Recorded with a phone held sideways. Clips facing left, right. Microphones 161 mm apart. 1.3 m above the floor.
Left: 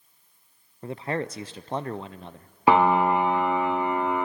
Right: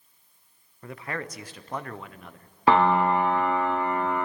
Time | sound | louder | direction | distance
0.8 | a man speaking | left 6 dB | 25° left (ahead or behind) | 0.6 m
2.7 | a piano | left 1 dB | 10° left (ahead or behind) | 0.8 m